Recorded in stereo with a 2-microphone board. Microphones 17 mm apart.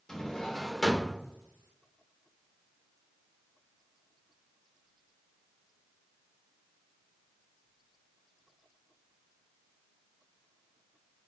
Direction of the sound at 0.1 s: 35° left (ahead or behind).